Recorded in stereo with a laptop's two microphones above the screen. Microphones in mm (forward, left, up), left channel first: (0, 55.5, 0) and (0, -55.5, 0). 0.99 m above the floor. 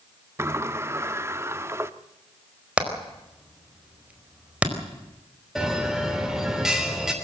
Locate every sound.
0.4 s a sliding door: 25° right (ahead or behind), 0.7 m
2.8 s hammering: 10° right (ahead or behind), 4.5 m
5.5 s a bell: 5° right (ahead or behind), 3 m